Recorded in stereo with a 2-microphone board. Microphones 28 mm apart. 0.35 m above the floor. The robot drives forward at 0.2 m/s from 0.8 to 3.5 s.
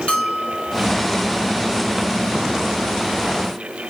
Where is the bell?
40° left (ahead or behind), 1.8 m.